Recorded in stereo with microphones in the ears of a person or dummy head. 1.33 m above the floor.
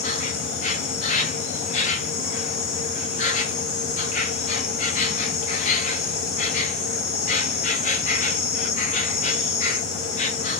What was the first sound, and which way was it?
An insect, 35° left (ahead or behind).